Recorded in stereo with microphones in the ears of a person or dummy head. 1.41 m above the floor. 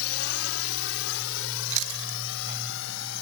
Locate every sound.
0.0 s a drone: 80° left; by 3.2 s 75° left (ahead or behind)
1.7 s chewing: 85° right